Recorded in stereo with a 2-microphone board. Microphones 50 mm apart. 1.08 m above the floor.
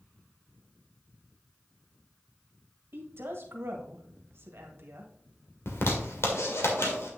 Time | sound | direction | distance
2.9 | a woman speaking | 50° right (ahead or behind) | 1.6 m
5.7 | a zipper | 60° left (ahead or behind) | 1.9 m